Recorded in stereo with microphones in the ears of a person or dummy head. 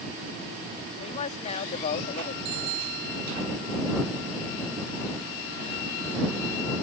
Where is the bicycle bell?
85° right.